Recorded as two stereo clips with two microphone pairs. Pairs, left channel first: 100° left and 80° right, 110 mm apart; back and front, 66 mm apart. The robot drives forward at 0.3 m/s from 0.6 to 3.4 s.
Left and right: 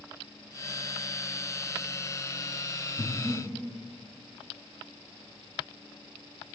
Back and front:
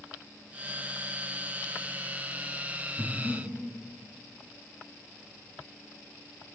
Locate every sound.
3.0 s breathing: 110° right, 1.4 m; by 3.5 s 115° right, 1.5 m